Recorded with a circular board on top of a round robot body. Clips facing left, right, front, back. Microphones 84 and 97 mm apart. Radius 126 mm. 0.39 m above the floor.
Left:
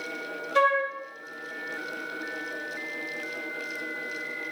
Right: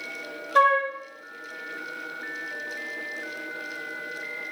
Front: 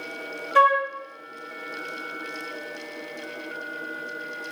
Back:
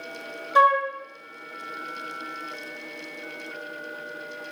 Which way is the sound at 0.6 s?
115° right.